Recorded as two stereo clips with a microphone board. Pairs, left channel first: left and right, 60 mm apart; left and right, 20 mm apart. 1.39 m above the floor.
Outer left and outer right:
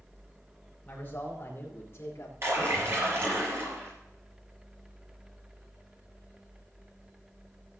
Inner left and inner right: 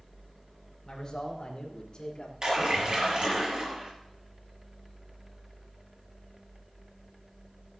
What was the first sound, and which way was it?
A man speaking, 30° left (ahead or behind).